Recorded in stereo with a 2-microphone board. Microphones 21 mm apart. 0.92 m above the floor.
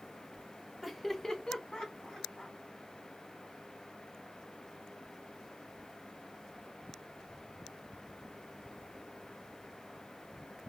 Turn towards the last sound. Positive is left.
turn(degrees=60)  # may be behind; listen again after turning